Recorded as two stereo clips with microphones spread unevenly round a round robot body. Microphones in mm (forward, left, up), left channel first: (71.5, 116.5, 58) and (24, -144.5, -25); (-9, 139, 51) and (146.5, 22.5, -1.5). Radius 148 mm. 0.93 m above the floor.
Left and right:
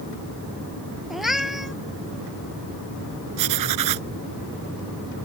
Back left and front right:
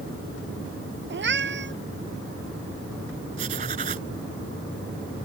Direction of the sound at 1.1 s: 10° right.